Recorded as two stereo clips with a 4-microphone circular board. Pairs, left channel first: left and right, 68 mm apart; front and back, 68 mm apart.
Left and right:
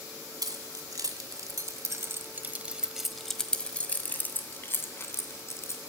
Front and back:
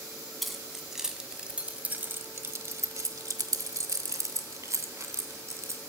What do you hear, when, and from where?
0.4 s keys jangling: 90° right, 1.8 m; by 5.8 s 135° left, 2.5 m